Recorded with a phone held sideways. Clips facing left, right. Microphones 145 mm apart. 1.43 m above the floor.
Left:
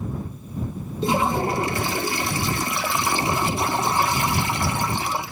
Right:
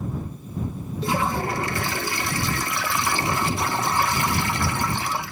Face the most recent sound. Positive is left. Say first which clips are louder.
# left 3 dB
turn(degrees=20)  # may be behind; listen again after turning